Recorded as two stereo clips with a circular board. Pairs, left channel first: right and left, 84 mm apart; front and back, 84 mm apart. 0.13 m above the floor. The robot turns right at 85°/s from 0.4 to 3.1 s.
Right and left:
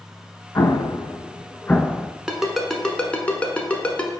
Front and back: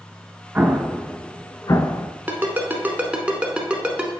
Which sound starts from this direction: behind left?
A ringtone, at 2.3 s.